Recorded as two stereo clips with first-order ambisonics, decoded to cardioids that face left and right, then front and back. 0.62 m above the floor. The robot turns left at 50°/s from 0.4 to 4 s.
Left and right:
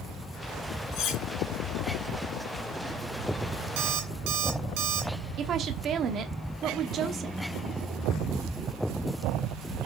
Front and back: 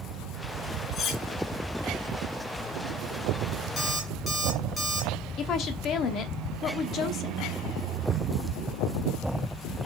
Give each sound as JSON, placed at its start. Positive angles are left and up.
{"t": 0.9, "sound": "cutlery clinking", "azimuth_deg": 65, "distance_m": 2.5}
{"t": 3.8, "sound": "an alarm clock", "azimuth_deg": -70, "distance_m": 2.5}
{"t": 5.4, "sound": "a woman speaking", "azimuth_deg": -45, "distance_m": 0.9}